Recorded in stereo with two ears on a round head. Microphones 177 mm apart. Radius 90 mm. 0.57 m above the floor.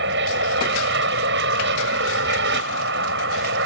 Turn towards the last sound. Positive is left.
turn(degrees=-55)  # may be behind; listen again after turning